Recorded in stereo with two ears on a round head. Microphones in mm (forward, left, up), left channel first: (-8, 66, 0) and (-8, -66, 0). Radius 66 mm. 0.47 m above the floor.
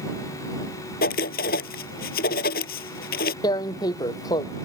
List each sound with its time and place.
1.0 s writing: 70° left (ahead or behind)
3.4 s tearing paper: 25° left (ahead or behind)